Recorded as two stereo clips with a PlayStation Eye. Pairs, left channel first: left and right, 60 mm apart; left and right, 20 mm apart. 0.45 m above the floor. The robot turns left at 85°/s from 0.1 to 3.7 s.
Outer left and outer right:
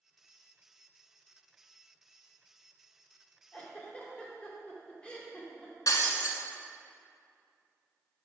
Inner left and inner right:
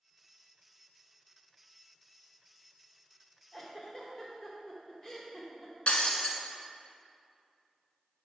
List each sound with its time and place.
3.5 s a giggle: 20° left (ahead or behind), 1.1 m
5.9 s breaking glass: 75° left (ahead or behind), 1.0 m